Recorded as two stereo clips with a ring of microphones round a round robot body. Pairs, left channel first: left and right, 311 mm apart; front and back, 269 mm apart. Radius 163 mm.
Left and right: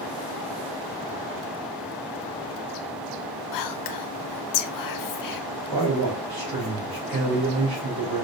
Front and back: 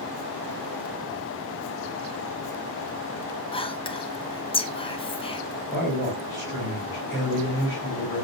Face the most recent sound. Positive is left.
turn(degrees=-100)